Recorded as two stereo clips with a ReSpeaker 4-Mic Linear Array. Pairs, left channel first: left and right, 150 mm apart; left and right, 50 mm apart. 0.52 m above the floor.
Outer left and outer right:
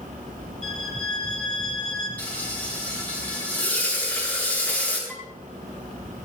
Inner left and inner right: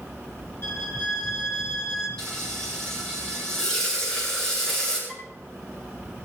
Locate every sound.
0.6 s a violin: 50° left (ahead or behind), 4.5 m
2.2 s frying: 10° left (ahead or behind), 8 m
5.1 s dishes clattering: 5° left (ahead or behind), 7 m